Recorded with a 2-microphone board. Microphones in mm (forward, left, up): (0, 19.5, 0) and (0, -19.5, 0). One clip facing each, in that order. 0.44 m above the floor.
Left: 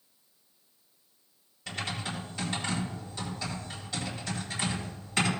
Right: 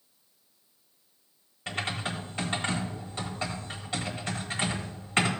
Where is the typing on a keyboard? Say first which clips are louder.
Right 3 dB; 40° right (ahead or behind), 2.5 m.